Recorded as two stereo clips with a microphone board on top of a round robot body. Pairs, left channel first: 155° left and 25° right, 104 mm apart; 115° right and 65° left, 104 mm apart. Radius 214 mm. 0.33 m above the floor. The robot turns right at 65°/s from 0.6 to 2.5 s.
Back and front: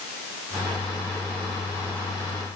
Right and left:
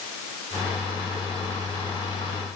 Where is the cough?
No cough in this recording.